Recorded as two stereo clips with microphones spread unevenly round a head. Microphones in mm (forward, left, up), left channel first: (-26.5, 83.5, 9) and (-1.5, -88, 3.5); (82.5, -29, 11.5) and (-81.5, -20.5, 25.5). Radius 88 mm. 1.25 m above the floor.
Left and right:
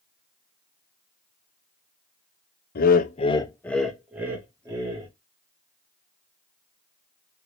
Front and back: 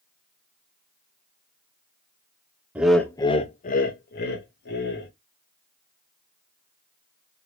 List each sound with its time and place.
2.8 s laughter: 95° left, 0.6 m; by 5.1 s 15° right, 1.4 m